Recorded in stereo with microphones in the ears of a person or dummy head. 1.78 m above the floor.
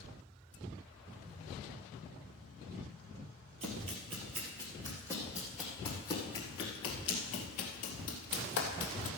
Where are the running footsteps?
30° right (ahead or behind), 2 m; by 9.1 s 45° left (ahead or behind), 2.5 m.